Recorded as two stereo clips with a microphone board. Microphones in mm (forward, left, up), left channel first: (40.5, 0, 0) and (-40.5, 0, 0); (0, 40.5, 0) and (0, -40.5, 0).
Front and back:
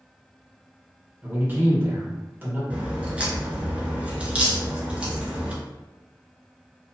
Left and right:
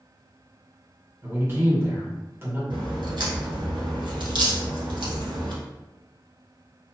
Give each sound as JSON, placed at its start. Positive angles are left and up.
{"t": 1.2, "sound": "a man speaking", "azimuth_deg": -130, "distance_m": 1.1}
{"t": 2.7, "sound": "a crack", "azimuth_deg": -105, "distance_m": 0.9}